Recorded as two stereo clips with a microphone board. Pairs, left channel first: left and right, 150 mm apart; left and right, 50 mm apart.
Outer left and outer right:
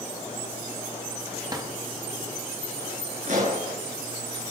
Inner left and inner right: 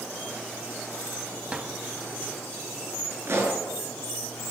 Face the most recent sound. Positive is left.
turn(degrees=-55)  # may be behind; listen again after turning